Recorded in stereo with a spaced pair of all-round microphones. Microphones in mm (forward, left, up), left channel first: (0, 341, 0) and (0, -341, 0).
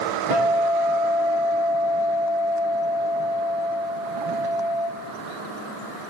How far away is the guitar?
About 3.5 m.